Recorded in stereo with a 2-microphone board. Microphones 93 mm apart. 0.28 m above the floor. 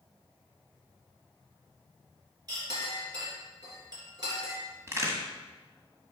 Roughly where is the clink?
Right.